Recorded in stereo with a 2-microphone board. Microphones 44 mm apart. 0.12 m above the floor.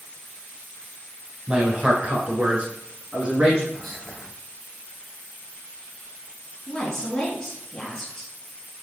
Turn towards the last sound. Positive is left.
turn(degrees=10)  # may be behind; listen again after turning